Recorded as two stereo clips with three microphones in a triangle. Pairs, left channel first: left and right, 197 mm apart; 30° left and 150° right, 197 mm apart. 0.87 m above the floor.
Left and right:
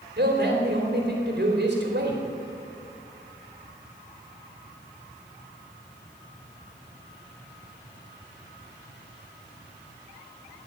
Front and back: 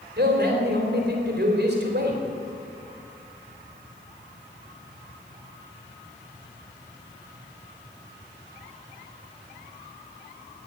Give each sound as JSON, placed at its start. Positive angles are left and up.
{"t": 0.2, "sound": "a man speaking", "azimuth_deg": -120, "distance_m": 3.0}